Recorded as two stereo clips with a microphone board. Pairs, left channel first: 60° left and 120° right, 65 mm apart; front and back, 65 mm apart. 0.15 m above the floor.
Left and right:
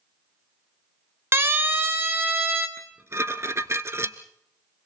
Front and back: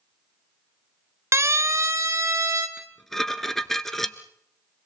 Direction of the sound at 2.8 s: 85° right.